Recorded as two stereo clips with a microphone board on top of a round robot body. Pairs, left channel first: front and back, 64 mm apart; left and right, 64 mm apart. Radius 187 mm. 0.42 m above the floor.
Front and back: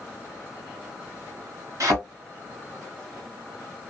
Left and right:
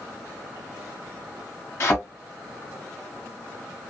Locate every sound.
1.8 s a thud: 145° left, 1.3 m